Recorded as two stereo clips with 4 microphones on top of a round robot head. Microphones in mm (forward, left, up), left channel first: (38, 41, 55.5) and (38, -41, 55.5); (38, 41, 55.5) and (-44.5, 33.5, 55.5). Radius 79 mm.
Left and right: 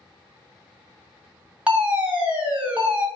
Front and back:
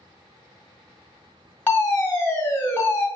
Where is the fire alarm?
35° right, 1.4 m.